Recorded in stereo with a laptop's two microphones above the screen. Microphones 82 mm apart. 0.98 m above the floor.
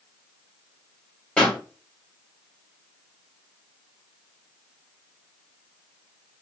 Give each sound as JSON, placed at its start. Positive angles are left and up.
{"t": 1.4, "sound": "a pop", "side_deg": 15, "distance_m": 3.0}